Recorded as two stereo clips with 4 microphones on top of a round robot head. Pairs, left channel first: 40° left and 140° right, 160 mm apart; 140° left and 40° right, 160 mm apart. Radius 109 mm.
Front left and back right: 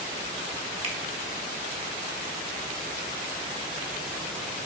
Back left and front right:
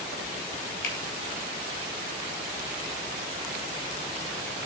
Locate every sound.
0.8 s a finger snap: 170° left, 2.5 m